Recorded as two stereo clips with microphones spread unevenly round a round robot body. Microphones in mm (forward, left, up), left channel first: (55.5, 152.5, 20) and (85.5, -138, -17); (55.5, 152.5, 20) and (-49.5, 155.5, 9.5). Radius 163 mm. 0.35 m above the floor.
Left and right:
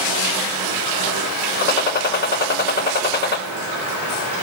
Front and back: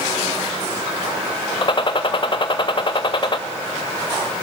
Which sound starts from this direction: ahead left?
A gunshot, at 1.6 s.